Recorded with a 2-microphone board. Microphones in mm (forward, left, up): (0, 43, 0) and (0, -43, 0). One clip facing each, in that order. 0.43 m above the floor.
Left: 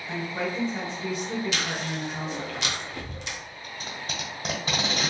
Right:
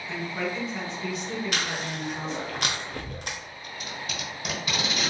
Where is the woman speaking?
20° left (ahead or behind), 1.7 m.